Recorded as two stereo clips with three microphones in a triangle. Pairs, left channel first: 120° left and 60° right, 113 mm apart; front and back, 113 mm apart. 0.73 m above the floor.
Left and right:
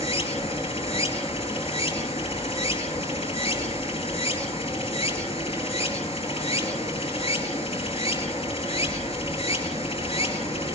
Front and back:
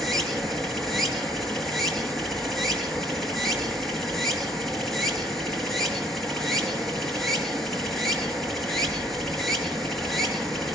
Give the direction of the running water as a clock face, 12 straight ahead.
9 o'clock.